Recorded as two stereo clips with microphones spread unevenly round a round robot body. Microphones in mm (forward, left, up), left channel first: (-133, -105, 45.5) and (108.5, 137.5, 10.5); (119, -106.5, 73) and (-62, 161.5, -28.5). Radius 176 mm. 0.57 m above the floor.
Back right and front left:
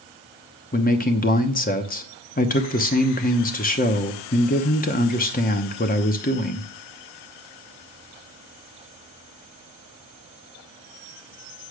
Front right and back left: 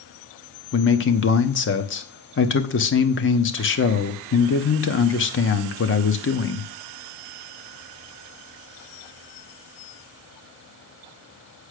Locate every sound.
0.7 s a man speaking: 100° right, 1.0 m